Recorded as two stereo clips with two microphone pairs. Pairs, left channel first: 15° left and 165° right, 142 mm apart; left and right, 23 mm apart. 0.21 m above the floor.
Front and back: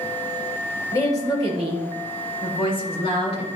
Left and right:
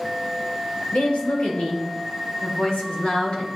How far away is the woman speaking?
About 4 m.